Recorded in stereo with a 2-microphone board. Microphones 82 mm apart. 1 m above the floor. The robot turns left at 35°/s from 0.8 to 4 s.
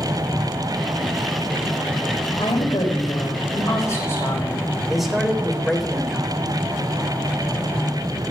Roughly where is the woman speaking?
Left.